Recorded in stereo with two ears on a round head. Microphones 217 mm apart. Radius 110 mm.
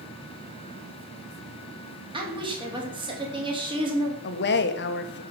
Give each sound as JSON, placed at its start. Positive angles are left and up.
{"t": 2.1, "sound": "a woman speaking", "side_deg": -20, "distance_m": 3.0}
{"t": 4.2, "sound": "a woman speaking", "side_deg": 50, "distance_m": 1.5}